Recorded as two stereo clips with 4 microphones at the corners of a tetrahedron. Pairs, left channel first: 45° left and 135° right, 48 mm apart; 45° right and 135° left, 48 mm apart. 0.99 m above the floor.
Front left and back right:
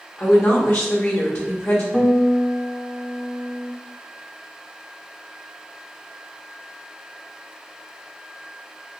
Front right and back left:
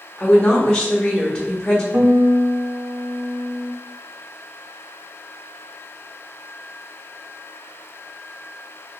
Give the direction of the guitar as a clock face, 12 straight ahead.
8 o'clock.